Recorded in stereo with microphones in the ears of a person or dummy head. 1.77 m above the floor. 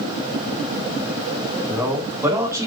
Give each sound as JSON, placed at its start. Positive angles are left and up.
{"t": 1.7, "sound": "a man speaking", "side_deg": -5, "distance_m": 4.5}